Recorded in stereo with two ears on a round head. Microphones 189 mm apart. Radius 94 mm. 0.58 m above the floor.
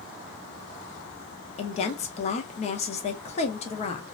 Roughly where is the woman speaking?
Left.